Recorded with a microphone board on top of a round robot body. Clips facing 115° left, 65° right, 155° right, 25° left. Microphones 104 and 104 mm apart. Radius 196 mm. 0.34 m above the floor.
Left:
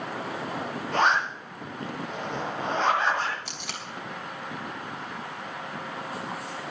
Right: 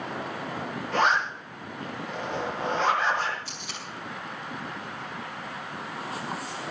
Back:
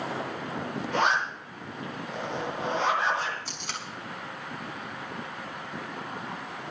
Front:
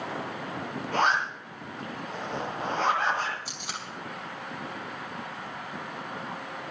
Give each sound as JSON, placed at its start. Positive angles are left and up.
{"t": 0.9, "sound": "a zipper", "azimuth_deg": 60, "distance_m": 8.0}
{"t": 3.5, "sound": "tape being pulled", "azimuth_deg": 100, "distance_m": 3.0}